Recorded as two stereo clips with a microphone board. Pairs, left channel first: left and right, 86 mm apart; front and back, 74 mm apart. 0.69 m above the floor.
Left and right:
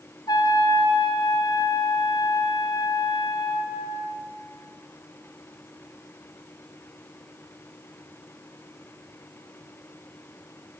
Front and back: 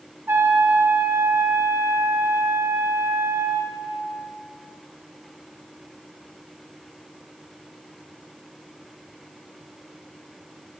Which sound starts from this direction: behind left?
A trumpet, at 0.3 s.